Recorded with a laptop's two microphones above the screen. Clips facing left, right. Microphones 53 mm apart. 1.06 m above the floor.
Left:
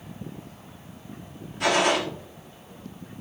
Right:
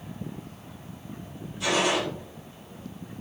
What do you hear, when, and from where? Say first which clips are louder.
1.6 s a gunshot: left 3 dB; 65° left (ahead or behind), 1.5 m